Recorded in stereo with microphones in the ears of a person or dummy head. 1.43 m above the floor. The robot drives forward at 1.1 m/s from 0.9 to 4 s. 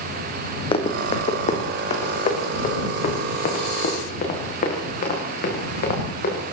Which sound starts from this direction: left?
Running footsteps, at 0.7 s.